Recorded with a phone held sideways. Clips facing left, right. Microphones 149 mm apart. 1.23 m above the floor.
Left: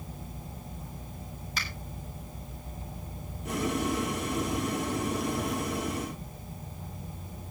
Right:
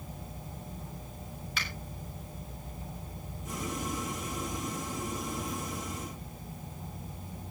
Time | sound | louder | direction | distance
1.6 | a finger snap | left 1 dB | 40° left (ahead or behind) | 7.5 m
3.5 | boiling | left 7 dB | 75° left (ahead or behind) | 1.5 m